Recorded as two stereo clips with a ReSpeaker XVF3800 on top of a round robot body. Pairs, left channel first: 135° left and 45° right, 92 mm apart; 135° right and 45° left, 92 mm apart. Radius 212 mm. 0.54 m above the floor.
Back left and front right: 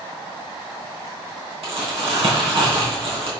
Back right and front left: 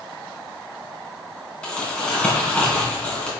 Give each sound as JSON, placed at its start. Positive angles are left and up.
{"t": 1.6, "sound": "crumpling", "azimuth_deg": -60, "distance_m": 3.5}